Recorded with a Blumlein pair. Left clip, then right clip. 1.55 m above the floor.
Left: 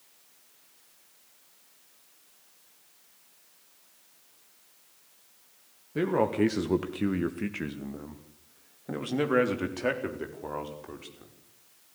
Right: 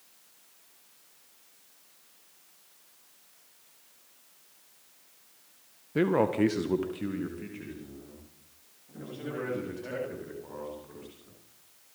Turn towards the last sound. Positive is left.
turn(degrees=60)